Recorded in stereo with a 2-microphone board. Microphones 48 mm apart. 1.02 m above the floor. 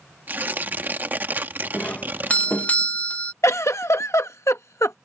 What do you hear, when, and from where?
0.3 s tearing paper: 40° right (ahead or behind)
1.7 s a doorbell: 30° left (ahead or behind)
3.4 s a giggle: 80° left